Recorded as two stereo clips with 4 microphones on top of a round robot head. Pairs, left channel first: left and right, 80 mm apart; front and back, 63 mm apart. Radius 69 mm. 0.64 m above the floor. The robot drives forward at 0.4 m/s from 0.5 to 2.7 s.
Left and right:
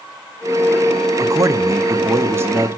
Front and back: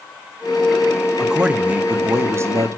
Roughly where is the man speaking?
Right.